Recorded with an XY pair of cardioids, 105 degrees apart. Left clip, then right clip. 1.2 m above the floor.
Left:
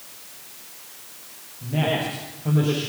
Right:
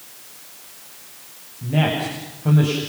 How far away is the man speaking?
About 7.5 m.